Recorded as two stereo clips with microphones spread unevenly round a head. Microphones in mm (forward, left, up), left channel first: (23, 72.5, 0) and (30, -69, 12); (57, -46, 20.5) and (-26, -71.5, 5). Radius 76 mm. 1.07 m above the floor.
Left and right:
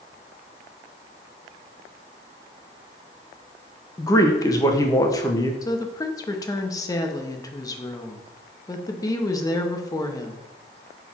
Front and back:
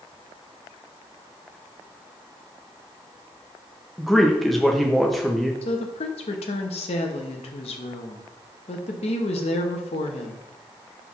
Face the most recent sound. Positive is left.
turn(degrees=25)